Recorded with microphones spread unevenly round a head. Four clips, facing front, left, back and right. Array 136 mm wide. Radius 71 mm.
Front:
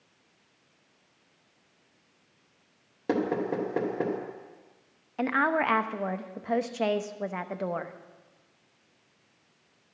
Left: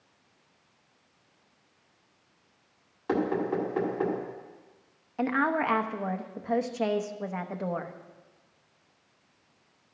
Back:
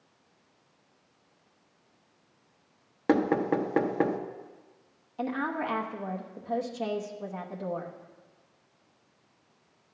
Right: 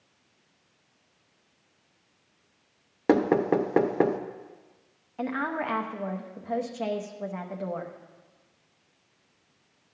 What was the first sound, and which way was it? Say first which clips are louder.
Knocking: right 6 dB, back 3 dB; 95° right.